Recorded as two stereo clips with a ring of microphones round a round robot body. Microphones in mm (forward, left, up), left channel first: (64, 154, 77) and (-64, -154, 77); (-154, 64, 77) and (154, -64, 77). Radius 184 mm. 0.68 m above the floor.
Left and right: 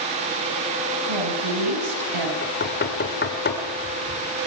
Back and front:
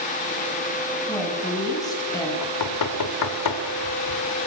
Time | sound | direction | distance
1.1 | a woman speaking | 125° right | 6 m
2.4 | knocking | 130° left | 2 m